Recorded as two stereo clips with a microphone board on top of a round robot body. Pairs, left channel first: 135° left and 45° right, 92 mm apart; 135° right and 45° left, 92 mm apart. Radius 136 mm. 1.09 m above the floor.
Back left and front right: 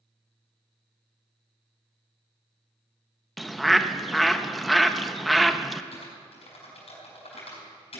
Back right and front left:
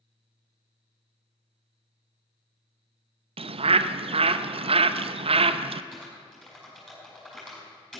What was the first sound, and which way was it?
A bird, 45° left.